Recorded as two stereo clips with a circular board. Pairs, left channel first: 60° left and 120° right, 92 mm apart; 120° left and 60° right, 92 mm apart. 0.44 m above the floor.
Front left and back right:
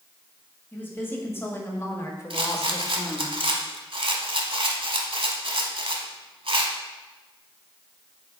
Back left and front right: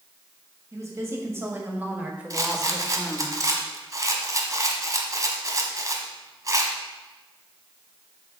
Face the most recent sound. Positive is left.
turn(degrees=-110)